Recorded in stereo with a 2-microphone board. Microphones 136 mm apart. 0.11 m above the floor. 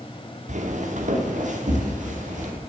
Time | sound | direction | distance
0.5 | footsteps | 65° right (ahead or behind) | 1.7 m